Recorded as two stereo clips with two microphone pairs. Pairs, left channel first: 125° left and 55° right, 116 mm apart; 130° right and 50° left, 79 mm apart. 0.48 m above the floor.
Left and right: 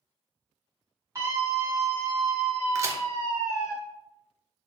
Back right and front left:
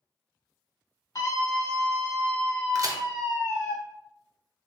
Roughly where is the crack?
Ahead.